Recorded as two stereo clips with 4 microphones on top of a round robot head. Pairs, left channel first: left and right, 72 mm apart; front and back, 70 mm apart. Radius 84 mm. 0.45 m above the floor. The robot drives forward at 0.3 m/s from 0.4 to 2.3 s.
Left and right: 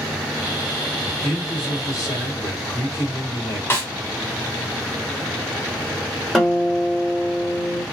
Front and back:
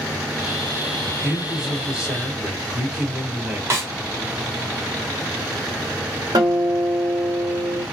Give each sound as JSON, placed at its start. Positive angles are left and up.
{"t": 1.0, "sound": "a man speaking", "azimuth_deg": 90, "distance_m": 2.0}
{"t": 3.7, "sound": "a snare drum", "azimuth_deg": 140, "distance_m": 1.6}
{"t": 6.3, "sound": "a guitar", "azimuth_deg": 180, "distance_m": 1.5}